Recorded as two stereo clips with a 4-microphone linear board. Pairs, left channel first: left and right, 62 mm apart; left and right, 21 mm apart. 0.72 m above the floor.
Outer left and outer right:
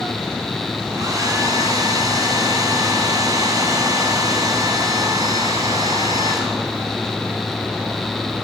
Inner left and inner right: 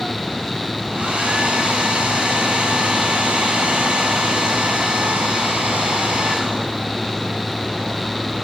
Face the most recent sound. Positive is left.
turn(degrees=-70)  # may be behind; listen again after turning